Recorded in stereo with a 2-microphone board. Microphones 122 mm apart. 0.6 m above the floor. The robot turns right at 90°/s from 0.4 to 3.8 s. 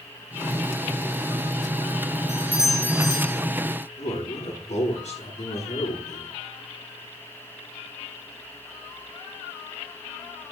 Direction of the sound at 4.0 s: 70° left (ahead or behind).